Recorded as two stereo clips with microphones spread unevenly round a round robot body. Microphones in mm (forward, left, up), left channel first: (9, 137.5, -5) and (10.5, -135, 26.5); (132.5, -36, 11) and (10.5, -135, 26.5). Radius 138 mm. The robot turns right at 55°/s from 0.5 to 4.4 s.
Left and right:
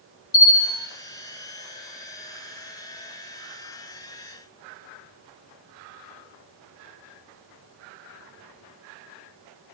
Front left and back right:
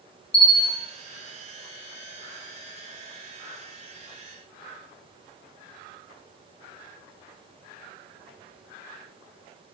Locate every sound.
0.3 s a bell: 75° left, 0.7 m; by 0.9 s 95° left, 0.7 m